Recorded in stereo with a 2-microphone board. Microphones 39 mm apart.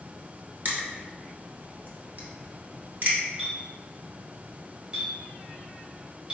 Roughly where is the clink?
Right.